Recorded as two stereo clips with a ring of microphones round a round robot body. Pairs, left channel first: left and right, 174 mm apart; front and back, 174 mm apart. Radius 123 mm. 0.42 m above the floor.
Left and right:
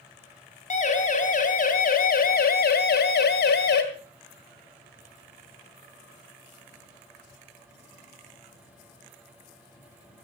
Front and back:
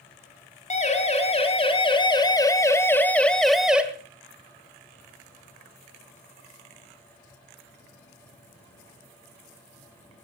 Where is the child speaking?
No child speaking in this recording.